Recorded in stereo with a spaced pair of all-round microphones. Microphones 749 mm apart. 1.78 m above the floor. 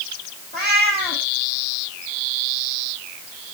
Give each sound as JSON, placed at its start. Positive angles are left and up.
{"t": 0.5, "sound": "a cat meowing", "side_deg": -55, "distance_m": 8.5}